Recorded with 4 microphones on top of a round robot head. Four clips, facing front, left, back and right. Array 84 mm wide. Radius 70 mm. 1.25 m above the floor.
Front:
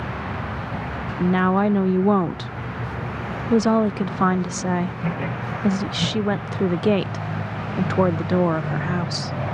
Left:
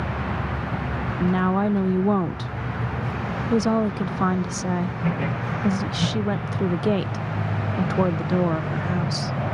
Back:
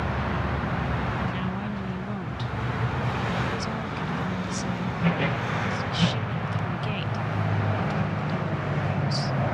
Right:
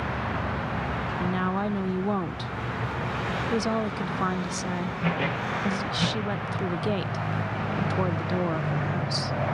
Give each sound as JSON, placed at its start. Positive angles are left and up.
{"t": 1.2, "sound": "a woman speaking", "azimuth_deg": 20}